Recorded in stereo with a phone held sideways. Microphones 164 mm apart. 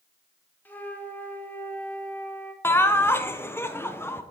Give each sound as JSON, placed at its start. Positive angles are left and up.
{"t": 0.7, "sound": "a flute", "side_deg": 10, "distance_m": 1.1}
{"t": 2.6, "sound": "laughter", "side_deg": 15, "distance_m": 0.7}